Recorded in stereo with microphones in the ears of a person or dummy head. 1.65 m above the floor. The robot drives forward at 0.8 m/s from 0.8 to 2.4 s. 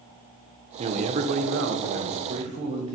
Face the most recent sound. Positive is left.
turn(degrees=-30)  # may be behind; listen again after turning